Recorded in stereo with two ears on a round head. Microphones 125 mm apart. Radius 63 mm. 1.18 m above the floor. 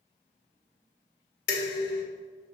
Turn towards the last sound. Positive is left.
turn(degrees=85)